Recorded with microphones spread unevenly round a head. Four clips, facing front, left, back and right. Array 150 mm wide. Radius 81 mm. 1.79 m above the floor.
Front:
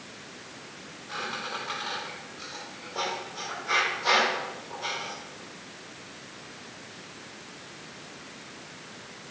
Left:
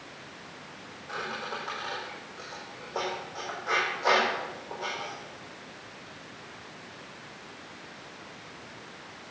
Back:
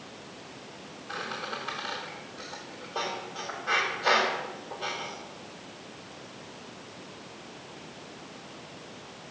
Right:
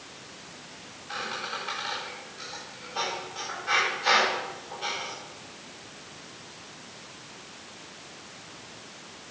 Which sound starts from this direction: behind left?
A squeak, at 1.1 s.